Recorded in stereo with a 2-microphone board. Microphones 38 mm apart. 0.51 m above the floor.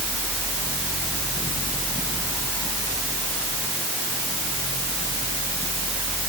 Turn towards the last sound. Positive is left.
No sound to turn to.